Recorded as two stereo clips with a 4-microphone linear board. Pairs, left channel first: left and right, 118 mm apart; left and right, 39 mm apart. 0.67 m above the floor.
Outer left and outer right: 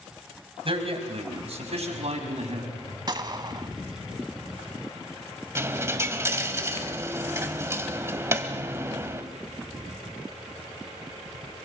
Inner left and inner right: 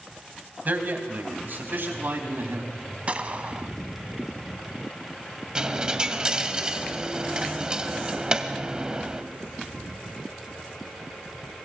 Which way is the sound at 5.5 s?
25° right (ahead or behind).